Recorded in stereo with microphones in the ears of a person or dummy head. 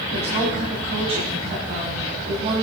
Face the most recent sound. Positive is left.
turn(degrees=-35)  # may be behind; listen again after turning